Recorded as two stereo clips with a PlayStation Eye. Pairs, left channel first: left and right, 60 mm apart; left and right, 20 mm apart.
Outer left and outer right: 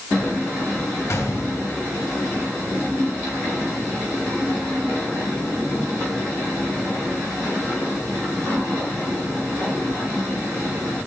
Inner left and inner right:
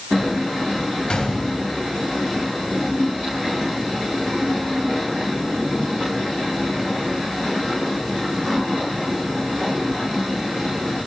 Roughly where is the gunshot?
Left.